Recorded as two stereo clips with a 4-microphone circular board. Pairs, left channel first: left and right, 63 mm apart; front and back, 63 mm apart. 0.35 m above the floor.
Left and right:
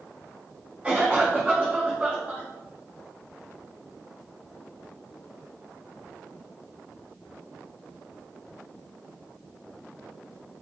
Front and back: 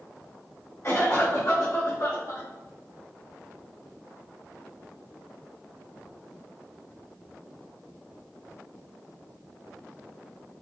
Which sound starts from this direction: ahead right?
A cough, at 0.8 s.